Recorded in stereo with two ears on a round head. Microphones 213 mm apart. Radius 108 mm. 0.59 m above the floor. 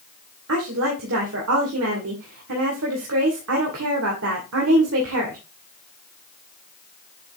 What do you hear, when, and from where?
0.5 s a woman speaking: 65° right (ahead or behind), 2 m